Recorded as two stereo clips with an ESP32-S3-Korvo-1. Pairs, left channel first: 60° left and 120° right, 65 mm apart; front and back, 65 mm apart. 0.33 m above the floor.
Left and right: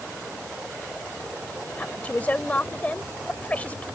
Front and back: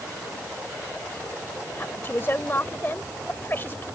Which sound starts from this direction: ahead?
A woman speaking, at 1.8 s.